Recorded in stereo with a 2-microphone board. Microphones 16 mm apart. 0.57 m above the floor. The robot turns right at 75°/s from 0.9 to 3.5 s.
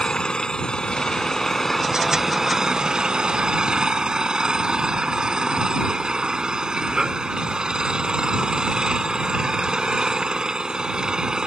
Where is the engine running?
105° left; by 11.5 s 60° right.